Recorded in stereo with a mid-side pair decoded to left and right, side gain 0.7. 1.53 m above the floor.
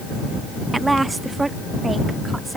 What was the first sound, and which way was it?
A woman speaking, 15° right.